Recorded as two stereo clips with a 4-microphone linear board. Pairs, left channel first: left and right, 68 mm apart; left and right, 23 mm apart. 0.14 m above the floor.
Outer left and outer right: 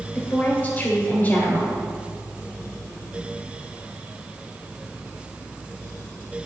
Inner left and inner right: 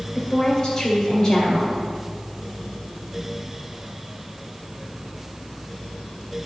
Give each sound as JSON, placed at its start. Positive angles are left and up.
{"t": 0.1, "sound": "a woman speaking", "side_deg": 30, "distance_m": 1.9}